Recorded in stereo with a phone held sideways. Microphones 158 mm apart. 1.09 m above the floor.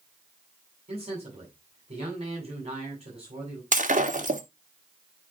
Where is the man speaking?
45° right (ahead or behind), 8 m.